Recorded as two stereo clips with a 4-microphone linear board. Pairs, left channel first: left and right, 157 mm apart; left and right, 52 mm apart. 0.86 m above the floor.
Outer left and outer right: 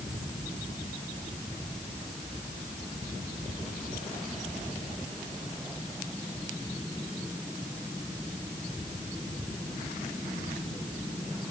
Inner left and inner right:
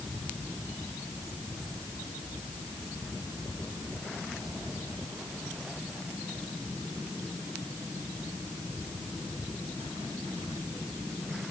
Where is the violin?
I don't hear a violin.